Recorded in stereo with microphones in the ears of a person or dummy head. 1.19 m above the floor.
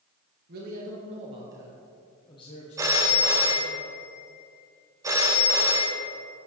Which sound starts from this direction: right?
A man speaking, at 0.5 s.